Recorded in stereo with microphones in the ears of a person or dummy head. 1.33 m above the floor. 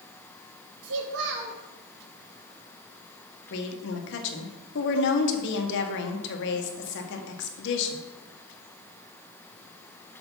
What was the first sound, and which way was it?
A child speaking, 65° right (ahead or behind).